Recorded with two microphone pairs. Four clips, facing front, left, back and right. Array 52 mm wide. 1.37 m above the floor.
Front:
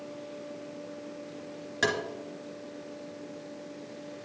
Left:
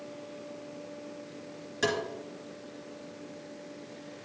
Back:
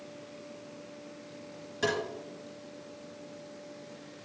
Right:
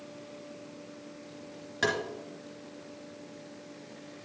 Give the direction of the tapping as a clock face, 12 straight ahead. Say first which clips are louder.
Even, front 2 dB; 1 o'clock.